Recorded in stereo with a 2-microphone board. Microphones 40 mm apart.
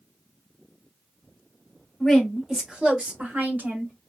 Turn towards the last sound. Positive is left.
turn(degrees=-50)  # may be behind; listen again after turning